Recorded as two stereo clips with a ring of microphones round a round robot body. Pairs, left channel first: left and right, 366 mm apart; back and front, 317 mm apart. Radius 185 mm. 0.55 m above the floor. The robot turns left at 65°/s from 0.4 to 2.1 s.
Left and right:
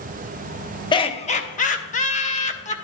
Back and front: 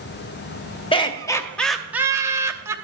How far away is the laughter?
About 0.8 m.